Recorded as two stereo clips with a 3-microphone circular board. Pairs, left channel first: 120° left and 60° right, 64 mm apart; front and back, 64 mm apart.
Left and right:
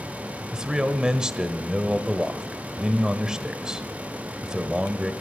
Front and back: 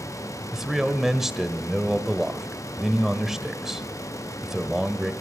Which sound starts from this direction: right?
A man speaking, at 0.5 s.